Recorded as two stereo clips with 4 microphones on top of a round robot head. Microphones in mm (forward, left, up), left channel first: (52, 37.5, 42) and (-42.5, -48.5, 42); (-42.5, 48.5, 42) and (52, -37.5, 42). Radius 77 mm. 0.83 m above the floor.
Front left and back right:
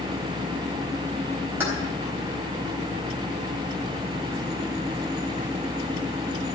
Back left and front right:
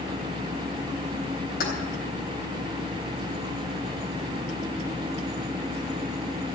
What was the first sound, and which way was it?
Keys jangling, 145° left.